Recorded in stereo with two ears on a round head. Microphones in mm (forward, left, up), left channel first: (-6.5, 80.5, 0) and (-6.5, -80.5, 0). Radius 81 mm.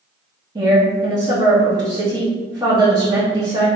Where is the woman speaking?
25° right (ahead or behind), 1.2 m.